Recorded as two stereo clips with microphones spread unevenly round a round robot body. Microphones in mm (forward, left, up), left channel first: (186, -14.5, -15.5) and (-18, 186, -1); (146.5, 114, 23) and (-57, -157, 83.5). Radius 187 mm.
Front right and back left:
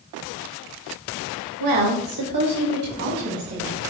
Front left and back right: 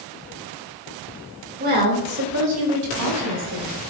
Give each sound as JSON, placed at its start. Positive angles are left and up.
{"t": 1.6, "sound": "a woman speaking", "azimuth_deg": 165, "distance_m": 2.0}